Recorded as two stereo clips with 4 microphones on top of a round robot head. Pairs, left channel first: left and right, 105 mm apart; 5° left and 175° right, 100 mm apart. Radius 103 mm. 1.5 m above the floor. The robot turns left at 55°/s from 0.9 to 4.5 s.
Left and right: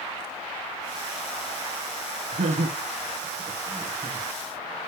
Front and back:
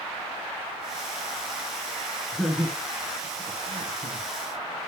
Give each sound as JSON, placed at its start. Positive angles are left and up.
{"t": 2.3, "sound": "laughter", "azimuth_deg": -80, "distance_m": 1.6}